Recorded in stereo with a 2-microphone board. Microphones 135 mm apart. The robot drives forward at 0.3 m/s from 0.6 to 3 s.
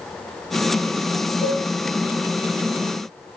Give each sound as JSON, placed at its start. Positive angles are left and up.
{"t": 1.4, "sound": "a cowbell", "side_deg": 20, "distance_m": 1.9}